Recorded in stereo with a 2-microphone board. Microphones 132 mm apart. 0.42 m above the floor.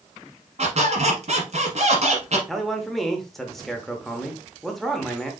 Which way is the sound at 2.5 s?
Centre (ahead or behind).